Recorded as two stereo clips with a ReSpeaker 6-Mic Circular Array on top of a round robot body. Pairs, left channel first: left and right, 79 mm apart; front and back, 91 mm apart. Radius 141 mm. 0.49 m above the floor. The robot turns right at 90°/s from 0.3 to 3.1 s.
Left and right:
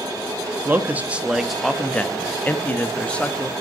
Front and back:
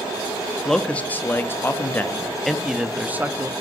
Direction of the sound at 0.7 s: 80° right.